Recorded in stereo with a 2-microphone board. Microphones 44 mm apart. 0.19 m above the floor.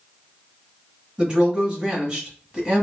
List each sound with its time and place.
1.2 s a woman speaking: 25° right (ahead or behind), 1.6 m